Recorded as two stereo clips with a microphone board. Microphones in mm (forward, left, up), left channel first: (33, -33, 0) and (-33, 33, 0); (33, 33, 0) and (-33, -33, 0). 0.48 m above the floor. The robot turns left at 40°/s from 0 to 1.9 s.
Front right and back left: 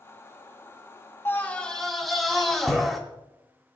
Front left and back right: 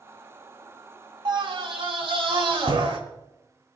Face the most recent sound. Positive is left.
turn(degrees=-135)